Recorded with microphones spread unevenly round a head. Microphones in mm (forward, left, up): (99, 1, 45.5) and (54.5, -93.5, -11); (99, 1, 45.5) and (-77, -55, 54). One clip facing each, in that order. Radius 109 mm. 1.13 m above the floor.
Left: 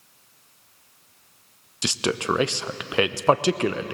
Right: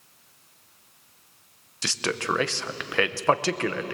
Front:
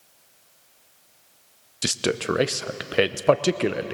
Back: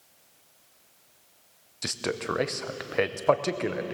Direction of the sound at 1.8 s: 25° right.